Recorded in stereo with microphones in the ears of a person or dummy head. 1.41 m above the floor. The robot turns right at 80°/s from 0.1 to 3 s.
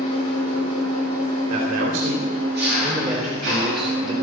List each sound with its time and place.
0.0 s an engine running: 40° left, 10 m; by 4.2 s 90° right, 10 m
1.5 s a man speaking: 150° right, 3.5 m; by 4.1 s 30° right, 3.5 m